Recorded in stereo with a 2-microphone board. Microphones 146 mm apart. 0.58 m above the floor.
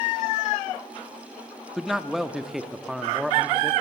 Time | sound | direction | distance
1.8 | a man speaking | centre (ahead or behind) | 0.7 m